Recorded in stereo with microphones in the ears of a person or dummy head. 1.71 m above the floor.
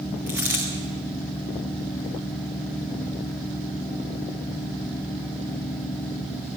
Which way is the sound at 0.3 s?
10° right (ahead or behind).